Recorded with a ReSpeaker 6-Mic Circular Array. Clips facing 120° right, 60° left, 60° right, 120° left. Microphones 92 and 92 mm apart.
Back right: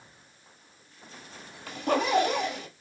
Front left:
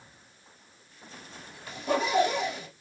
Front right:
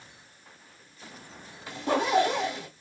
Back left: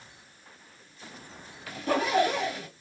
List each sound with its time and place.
1.7 s a zipper: 125° right, 1.6 m